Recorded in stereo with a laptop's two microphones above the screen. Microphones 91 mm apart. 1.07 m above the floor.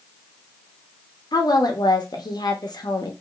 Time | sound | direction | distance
1.3 | a woman speaking | 50° left (ahead or behind) | 0.7 m